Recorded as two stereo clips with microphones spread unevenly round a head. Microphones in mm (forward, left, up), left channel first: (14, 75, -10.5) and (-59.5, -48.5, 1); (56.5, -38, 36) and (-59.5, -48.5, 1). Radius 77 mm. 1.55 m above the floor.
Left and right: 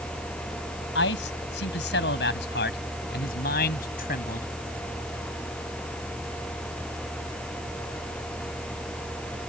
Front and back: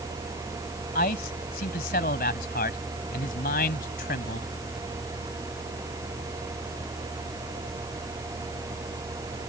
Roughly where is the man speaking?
Ahead left.